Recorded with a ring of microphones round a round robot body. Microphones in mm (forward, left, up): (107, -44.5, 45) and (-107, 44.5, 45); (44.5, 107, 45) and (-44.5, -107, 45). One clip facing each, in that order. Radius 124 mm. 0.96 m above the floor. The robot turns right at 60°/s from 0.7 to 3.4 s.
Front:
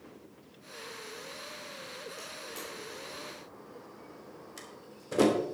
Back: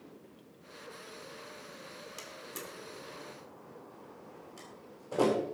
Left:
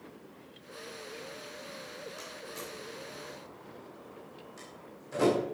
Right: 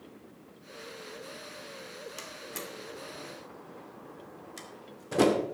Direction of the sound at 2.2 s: 160° right.